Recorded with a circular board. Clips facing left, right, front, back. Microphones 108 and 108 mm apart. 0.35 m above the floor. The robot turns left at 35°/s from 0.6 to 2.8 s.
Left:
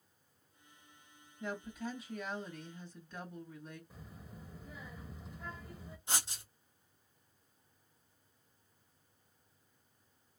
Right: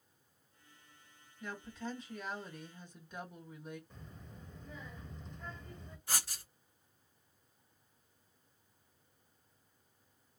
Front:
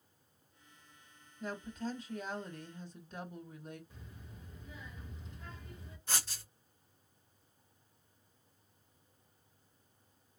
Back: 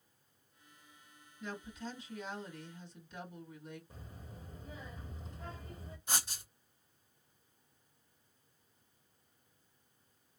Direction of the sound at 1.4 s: 30° left.